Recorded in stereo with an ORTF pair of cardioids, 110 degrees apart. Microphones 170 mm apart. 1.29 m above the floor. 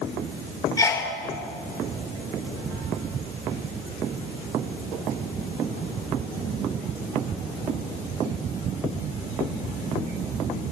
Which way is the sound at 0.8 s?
20° left.